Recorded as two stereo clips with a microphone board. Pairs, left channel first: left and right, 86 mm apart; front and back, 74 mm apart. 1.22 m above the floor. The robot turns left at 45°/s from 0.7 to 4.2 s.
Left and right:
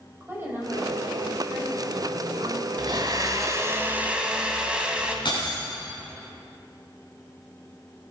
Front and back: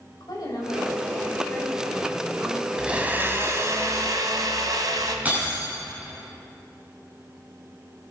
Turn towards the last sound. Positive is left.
turn(degrees=110)